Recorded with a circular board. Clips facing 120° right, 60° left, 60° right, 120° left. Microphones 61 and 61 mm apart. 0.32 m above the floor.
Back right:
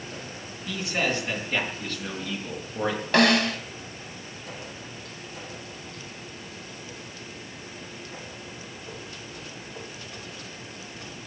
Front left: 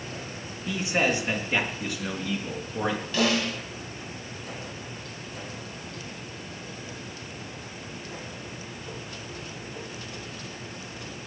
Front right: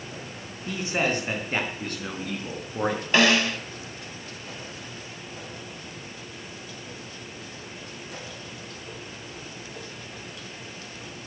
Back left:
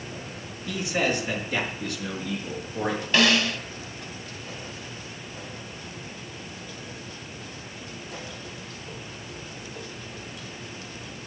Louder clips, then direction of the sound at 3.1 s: Back right 7 dB, front right 1 dB; 120° right.